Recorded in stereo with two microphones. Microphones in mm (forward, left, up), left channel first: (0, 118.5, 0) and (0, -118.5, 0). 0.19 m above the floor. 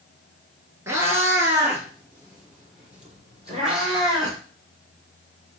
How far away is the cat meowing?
About 1.1 m.